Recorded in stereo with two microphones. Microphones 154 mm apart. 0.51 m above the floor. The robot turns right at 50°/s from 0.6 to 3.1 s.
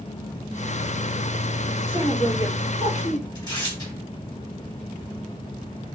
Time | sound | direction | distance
1.9 | a woman speaking | 35° left | 1.0 m
3.4 | tearing paper | 25° left (ahead or behind) | 1.5 m